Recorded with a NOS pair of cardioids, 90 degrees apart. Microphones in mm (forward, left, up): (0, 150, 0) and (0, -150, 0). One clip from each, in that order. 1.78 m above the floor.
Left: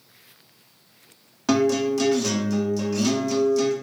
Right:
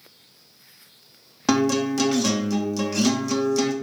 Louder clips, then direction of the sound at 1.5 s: Left 1 dB; 30° right.